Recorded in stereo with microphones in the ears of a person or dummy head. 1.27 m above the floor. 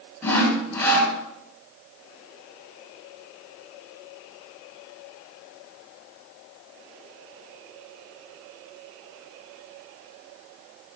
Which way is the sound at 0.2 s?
10° left (ahead or behind).